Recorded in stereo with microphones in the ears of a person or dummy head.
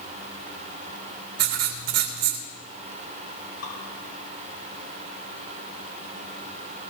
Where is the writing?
55° right (ahead or behind), 2 m.